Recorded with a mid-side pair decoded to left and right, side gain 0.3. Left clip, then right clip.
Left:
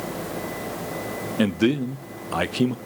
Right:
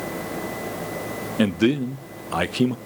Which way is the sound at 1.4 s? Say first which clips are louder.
Right 1 dB; 10° right.